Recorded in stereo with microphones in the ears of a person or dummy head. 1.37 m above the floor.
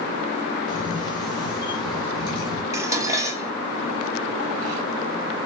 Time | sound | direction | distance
0.7 | a camera shutter | 35° left (ahead or behind) | 3.5 m
2.7 | dishes clattering | 15° right (ahead or behind) | 1.3 m